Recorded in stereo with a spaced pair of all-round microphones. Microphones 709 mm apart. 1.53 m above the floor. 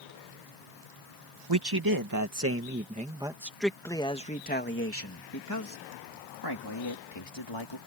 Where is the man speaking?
35° right (ahead or behind); by 7.8 s 40° left (ahead or behind).